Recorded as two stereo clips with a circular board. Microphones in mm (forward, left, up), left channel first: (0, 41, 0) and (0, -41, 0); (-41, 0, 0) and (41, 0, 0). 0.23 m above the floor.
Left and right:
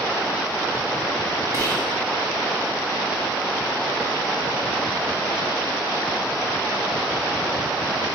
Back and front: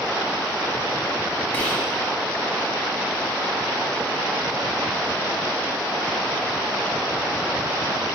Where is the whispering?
120° right, 1.4 m.